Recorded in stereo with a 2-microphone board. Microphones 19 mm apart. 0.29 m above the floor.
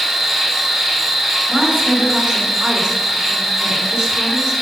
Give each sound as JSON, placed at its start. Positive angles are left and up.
{"t": 0.0, "sound": "an insect", "side_deg": -10, "distance_m": 3.0}
{"t": 1.5, "sound": "a woman speaking", "side_deg": -25, "distance_m": 3.5}